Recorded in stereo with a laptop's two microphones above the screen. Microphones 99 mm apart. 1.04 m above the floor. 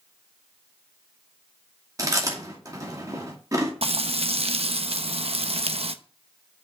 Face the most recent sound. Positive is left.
turn(degrees=-80)